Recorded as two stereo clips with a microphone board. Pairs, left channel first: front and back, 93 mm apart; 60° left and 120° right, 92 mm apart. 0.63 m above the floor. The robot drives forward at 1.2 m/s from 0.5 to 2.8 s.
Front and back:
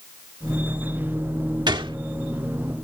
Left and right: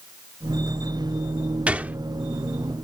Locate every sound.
1.7 s a gunshot: 165° left; by 2.0 s 170° left